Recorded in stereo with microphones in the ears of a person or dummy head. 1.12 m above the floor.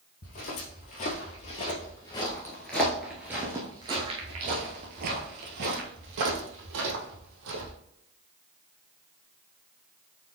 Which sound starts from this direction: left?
Footsteps, at 0.2 s.